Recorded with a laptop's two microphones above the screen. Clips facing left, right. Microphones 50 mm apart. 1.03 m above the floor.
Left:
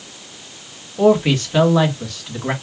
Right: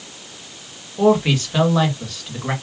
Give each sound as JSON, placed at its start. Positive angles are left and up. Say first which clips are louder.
{"t": 1.0, "sound": "a man speaking", "louder": "left 2 dB", "side_deg": 0, "distance_m": 1.5}